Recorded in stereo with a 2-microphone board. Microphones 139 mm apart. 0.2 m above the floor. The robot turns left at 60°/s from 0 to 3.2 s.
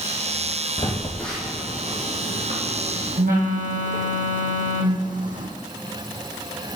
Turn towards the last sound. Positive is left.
turn(degrees=-110)